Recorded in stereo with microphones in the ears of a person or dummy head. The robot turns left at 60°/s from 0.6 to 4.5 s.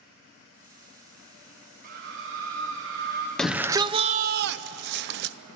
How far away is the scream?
About 1.2 m.